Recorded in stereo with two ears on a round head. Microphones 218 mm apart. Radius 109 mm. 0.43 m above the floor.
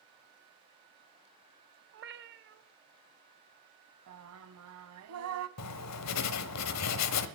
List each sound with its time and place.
1.9 s a cat meowing: 45° right (ahead or behind), 0.7 m
4.1 s singing: 65° right (ahead or behind), 0.7 m
5.6 s writing: 75° left (ahead or behind), 1.1 m